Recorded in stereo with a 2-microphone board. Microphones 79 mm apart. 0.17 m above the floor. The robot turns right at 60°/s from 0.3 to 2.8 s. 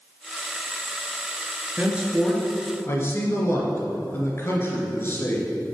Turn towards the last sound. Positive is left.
turn(degrees=35)